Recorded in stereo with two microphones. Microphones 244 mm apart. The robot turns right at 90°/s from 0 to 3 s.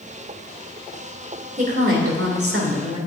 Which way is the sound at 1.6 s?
150° right.